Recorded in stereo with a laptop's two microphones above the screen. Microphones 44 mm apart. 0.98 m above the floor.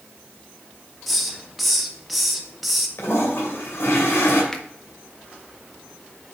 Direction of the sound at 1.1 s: Centre (ahead or behind).